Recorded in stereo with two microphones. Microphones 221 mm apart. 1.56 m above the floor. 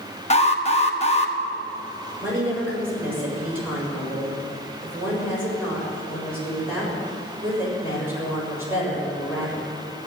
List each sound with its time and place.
0.3 s an alarm: 30° left (ahead or behind), 1.2 m
2.2 s a woman speaking: 10° right (ahead or behind), 7 m